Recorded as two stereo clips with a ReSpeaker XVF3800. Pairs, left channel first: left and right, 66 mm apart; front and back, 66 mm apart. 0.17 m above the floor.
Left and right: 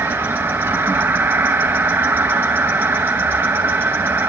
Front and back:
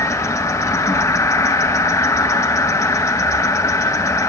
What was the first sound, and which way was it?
An insect, 30° right.